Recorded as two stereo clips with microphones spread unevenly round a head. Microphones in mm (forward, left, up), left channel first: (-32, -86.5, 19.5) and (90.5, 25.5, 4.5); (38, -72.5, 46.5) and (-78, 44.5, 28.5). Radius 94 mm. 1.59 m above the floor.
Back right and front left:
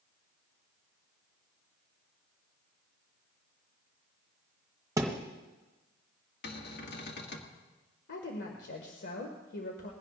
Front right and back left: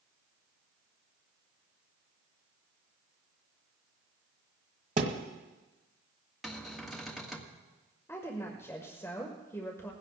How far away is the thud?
About 1.5 m.